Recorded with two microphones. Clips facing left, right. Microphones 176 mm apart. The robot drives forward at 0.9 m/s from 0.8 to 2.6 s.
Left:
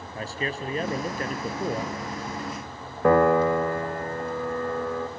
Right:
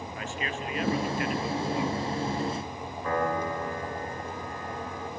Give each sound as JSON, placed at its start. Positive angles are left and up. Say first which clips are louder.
{"t": 0.1, "sound": "a man speaking", "louder": "left 5 dB", "side_deg": 40, "distance_m": 2.0}
{"t": 3.0, "sound": "a piano", "louder": "left 11 dB", "side_deg": 80, "distance_m": 2.0}